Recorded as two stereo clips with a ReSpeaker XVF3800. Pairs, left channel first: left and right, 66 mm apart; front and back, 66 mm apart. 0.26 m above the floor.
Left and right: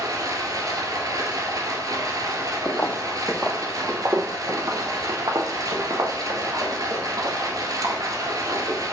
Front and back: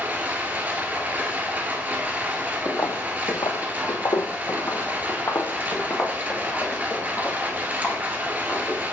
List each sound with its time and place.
0.0 s running water: 115° right, 1.6 m
2.6 s footsteps: 40° left, 0.6 m; by 8.8 s 65° right, 3.5 m